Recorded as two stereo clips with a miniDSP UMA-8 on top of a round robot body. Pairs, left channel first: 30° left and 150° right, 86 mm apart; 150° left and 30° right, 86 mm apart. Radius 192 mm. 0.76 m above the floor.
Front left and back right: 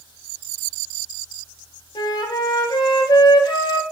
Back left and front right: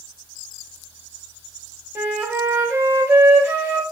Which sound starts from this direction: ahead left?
A flute, at 1.9 s.